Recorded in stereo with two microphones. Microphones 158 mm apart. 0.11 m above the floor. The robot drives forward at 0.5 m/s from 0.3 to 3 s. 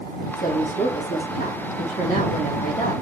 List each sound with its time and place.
0.4 s a woman speaking: 60° left (ahead or behind), 3.5 m; by 2.9 s 45° left (ahead or behind), 4 m